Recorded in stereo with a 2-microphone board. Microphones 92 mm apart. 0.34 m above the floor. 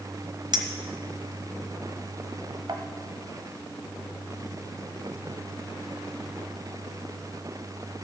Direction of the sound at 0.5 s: 50° right (ahead or behind).